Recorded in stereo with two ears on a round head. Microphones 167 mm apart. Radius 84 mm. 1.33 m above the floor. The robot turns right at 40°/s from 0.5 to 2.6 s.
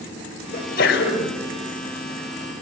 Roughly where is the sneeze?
Ahead left.